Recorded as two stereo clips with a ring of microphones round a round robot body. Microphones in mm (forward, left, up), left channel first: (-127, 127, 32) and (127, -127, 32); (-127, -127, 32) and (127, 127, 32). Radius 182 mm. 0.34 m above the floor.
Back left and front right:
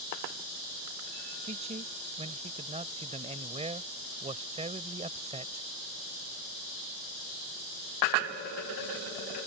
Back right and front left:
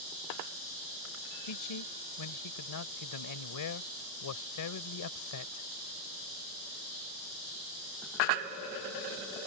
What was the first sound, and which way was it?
A man speaking, 115° right.